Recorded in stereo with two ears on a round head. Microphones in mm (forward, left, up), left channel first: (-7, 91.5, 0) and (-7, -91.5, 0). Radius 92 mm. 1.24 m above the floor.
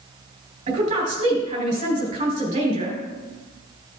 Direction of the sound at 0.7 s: 35° right (ahead or behind).